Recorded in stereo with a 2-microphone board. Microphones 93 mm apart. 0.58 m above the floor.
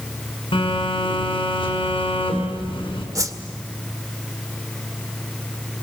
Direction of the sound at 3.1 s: 35° right (ahead or behind).